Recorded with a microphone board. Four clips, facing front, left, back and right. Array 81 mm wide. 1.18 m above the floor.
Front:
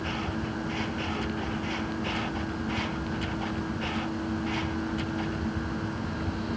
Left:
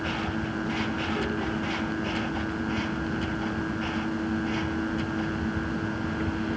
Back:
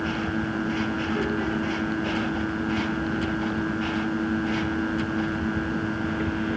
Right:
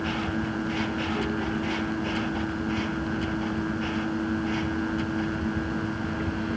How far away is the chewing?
I don't hear chewing.